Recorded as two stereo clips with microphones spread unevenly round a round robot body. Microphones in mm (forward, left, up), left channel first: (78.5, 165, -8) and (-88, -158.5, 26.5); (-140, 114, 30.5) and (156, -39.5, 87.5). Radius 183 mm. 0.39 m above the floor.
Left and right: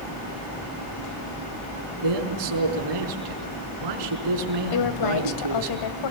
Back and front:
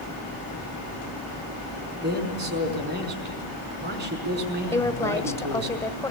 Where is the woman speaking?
75° left, 1.6 m.